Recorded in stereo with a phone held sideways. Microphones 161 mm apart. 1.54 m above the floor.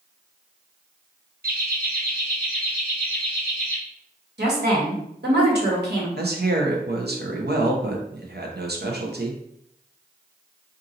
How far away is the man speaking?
About 0.8 m.